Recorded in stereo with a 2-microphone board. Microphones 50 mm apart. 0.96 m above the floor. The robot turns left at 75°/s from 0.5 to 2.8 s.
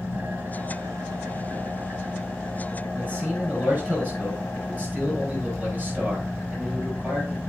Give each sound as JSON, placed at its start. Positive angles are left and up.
{"t": 0.0, "sound": "an engine running", "azimuth_deg": -35, "distance_m": 2.0}
{"t": 2.9, "sound": "a man speaking", "side_deg": -35, "distance_m": 5.0}